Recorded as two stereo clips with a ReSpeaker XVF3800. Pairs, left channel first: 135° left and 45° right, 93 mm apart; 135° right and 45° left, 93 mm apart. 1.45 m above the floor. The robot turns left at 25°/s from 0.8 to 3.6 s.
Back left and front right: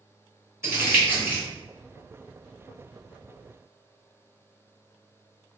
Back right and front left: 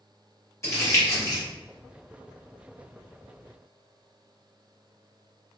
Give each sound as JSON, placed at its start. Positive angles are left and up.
{"t": 0.6, "sound": "crumpling", "azimuth_deg": -95, "distance_m": 1.5}